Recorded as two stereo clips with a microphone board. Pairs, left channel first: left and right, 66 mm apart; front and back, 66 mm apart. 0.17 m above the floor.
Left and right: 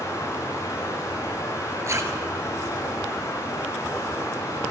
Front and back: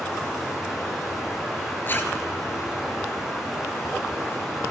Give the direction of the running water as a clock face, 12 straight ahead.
9 o'clock.